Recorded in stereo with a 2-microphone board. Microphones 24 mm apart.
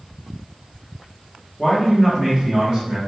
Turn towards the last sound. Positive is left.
turn(degrees=-35)  # may be behind; listen again after turning